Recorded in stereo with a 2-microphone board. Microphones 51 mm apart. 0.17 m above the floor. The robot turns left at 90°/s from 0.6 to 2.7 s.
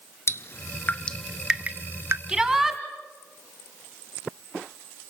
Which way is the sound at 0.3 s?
55° left (ahead or behind).